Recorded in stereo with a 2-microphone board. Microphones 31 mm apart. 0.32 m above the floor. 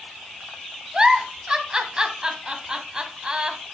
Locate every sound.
0.9 s a giggle: 30° right (ahead or behind), 1.0 m